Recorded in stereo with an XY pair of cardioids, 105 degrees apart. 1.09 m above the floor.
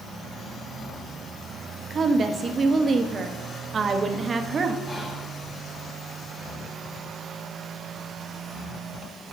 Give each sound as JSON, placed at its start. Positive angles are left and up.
{"t": 1.9, "sound": "a woman speaking", "azimuth_deg": -35, "distance_m": 1.0}
{"t": 4.9, "sound": "whispering", "azimuth_deg": 5, "distance_m": 2.0}